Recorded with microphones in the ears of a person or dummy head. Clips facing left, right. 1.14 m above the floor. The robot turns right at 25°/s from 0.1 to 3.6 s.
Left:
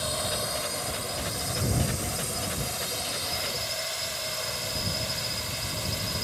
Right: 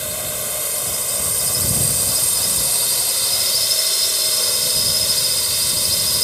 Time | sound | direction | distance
0.0 | a drone | 150° right | ?